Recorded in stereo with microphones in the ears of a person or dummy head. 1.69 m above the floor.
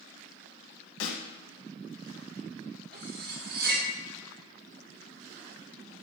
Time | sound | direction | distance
1.0 | a snare drum | 80° left | 1.6 m
2.9 | cutlery clinking | 55° right (ahead or behind) | 2 m